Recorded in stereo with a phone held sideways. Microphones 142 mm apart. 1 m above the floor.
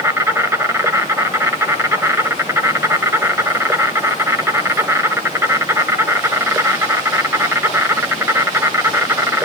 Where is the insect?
15° right (ahead or behind), 1.1 m.